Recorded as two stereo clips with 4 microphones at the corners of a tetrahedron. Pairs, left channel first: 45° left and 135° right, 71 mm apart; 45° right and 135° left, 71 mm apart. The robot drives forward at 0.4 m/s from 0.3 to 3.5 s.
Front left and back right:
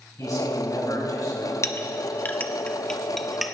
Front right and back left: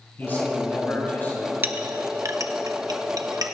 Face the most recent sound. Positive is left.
turn(degrees=135)